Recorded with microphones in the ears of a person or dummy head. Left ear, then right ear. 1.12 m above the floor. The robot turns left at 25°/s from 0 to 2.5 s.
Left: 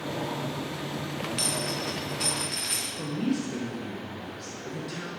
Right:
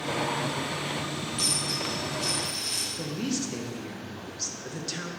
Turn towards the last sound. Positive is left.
turn(degrees=-25)  # may be behind; listen again after turning